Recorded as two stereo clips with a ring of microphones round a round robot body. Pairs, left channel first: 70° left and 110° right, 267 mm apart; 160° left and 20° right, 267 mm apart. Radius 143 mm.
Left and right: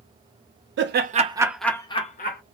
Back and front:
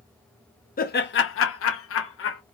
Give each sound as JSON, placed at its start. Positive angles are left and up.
{"t": 0.8, "sound": "laughter", "azimuth_deg": -150, "distance_m": 0.8}